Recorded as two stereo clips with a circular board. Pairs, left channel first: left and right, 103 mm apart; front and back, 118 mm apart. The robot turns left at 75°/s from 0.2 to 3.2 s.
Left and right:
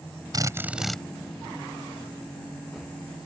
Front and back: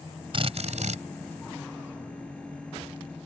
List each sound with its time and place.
0.3 s a drill: 140° right; by 1.0 s 170° left